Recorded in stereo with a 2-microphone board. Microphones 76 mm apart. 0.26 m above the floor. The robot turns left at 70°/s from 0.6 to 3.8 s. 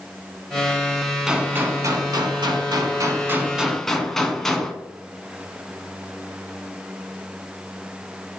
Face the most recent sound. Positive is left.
turn(degrees=175)